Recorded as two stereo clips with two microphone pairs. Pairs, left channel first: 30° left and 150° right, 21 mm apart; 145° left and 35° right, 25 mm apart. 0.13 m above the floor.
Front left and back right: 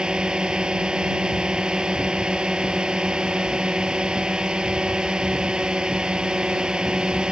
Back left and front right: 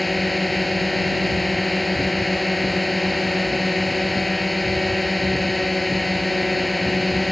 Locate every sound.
0.0 s a drone: 125° right